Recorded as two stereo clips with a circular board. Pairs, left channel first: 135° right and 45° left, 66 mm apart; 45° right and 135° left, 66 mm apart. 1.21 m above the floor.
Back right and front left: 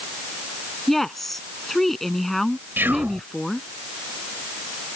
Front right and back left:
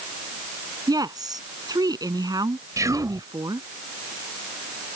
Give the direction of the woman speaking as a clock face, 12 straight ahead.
7 o'clock.